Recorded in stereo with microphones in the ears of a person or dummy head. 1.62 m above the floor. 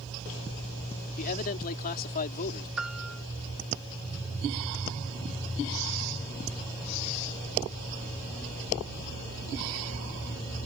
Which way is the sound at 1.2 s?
50° left (ahead or behind).